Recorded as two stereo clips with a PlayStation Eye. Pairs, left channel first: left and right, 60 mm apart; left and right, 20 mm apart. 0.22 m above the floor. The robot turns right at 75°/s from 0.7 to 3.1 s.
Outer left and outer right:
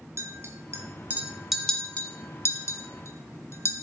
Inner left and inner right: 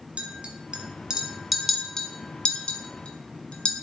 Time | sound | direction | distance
0.2 | a clink | 50° right (ahead or behind) | 1.6 m